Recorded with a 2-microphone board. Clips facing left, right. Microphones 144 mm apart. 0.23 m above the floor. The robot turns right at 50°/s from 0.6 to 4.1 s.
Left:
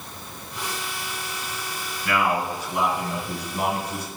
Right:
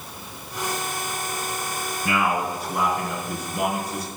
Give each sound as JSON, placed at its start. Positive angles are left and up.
{"t": 2.0, "sound": "a man speaking", "side_deg": -25, "distance_m": 4.0}